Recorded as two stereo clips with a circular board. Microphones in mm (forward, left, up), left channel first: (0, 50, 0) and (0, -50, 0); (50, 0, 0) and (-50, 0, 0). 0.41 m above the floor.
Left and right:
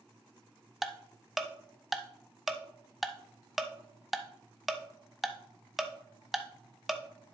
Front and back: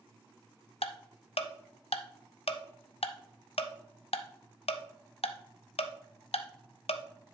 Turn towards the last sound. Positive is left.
turn(degrees=0)